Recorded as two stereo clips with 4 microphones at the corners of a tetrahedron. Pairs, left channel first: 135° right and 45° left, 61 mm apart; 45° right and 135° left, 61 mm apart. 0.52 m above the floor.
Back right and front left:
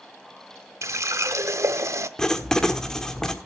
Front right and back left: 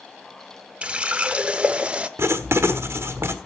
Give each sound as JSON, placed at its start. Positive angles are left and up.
{"t": 0.8, "sound": "a running tap", "azimuth_deg": 70, "distance_m": 0.8}
{"t": 2.2, "sound": "writing", "azimuth_deg": 145, "distance_m": 1.3}